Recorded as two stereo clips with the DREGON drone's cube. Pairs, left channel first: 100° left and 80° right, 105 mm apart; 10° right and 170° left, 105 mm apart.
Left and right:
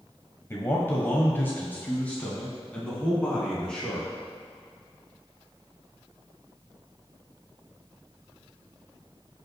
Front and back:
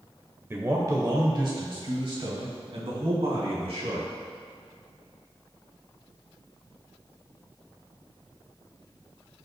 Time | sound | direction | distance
0.5 | a man speaking | 130° left | 1.0 m